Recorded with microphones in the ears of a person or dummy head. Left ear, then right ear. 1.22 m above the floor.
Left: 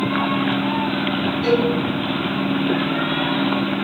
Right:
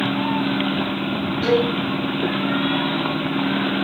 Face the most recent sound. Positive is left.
turn(degrees=-35)  # may be behind; listen again after turning